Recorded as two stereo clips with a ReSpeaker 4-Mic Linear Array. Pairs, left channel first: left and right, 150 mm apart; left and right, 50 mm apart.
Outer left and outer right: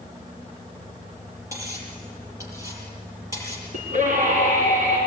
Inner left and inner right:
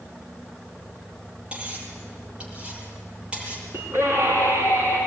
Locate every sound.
1.5 s cutlery clinking: 20° right (ahead or behind), 7.5 m
3.7 s a scream: 55° right (ahead or behind), 5 m